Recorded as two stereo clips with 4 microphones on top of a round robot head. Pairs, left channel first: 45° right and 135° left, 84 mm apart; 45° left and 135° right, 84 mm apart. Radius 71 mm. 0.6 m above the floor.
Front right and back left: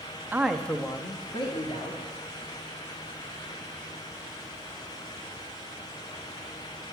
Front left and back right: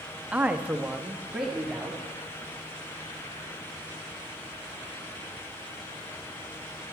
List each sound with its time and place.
0.3 s a man speaking: 170° left, 0.7 m; by 2.0 s 50° right, 1.6 m